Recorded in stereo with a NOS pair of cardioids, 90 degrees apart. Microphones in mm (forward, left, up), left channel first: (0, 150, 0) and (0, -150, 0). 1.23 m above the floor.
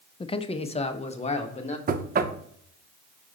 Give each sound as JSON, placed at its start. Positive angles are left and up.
{"t": 0.2, "sound": "a man speaking", "azimuth_deg": 15, "distance_m": 0.5}
{"t": 1.9, "sound": "knocking", "azimuth_deg": -30, "distance_m": 0.7}